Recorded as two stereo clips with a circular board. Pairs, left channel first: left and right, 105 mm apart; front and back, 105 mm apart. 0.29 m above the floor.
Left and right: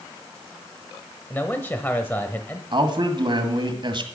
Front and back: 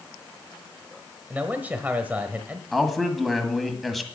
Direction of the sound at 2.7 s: 90° right.